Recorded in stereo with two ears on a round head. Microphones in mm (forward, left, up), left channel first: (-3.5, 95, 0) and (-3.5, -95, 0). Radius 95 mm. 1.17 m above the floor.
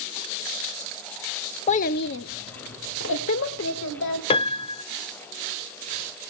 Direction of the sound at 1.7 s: 30° left (ahead or behind).